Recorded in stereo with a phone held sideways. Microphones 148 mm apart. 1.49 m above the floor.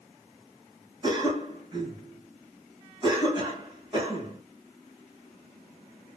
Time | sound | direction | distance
1.0 | a cough | 30° right (ahead or behind) | 1.7 m